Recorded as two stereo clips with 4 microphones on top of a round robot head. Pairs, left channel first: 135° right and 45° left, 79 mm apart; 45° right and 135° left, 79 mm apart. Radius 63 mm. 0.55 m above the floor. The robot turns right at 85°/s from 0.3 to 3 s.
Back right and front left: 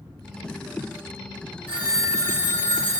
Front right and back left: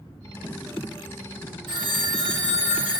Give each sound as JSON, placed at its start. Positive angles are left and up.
{"t": 1.7, "sound": "a phone ringing", "azimuth_deg": 110, "distance_m": 1.9}